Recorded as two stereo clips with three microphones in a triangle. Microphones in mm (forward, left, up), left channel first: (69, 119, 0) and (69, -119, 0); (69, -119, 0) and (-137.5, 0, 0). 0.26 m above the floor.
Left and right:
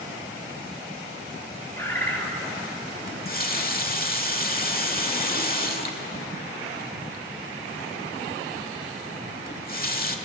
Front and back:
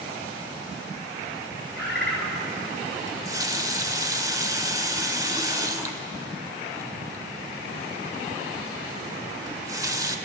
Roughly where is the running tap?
Left.